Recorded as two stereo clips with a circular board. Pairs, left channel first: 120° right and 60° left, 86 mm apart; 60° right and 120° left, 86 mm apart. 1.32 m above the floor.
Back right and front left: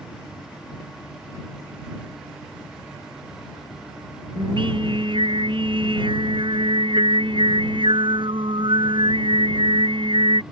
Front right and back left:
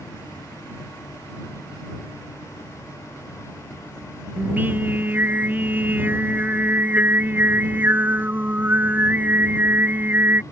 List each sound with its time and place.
4.4 s singing: 50° left